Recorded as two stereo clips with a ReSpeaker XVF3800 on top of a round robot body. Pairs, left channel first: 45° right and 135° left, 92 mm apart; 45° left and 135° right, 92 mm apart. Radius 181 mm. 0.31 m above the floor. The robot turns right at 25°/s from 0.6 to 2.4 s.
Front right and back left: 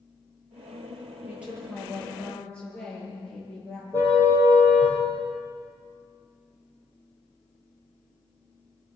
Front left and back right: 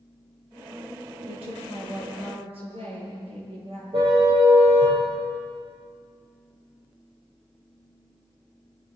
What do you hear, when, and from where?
1.3 s a woman speaking: 150° right, 9.5 m; by 3.8 s 125° right, 9.5 m
3.9 s a car horn: 110° right, 8.5 m